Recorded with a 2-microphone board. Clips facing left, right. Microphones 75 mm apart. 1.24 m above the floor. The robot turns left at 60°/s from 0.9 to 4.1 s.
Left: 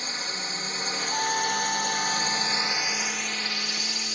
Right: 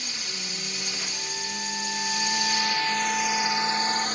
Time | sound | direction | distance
0.0 | a drone | 135° left | ?
1.1 | a trumpet | 60° left | ?